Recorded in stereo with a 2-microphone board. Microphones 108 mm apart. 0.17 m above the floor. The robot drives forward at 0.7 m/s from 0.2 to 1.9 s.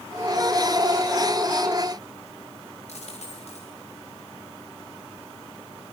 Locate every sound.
2.9 s a dropped coin: 75° left (ahead or behind), 7.5 m